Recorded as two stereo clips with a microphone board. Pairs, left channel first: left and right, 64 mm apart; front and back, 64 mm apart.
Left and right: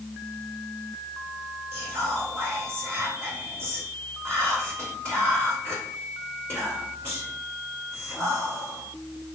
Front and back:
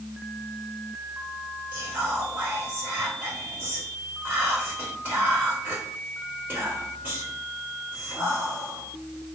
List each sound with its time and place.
1.7 s whispering: 120° right, 1.9 m